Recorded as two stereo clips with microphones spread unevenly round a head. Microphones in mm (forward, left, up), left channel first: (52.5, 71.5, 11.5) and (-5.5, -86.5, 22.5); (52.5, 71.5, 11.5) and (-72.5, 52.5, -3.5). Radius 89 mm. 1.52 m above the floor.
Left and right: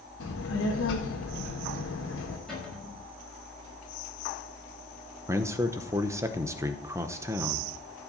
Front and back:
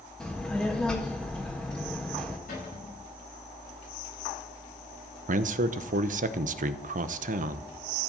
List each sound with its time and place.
0.2 s a child speaking: 90° left, 1.7 m
2.5 s a cupboard door: 15° right, 6 m
5.3 s a man speaking: straight behind, 0.7 m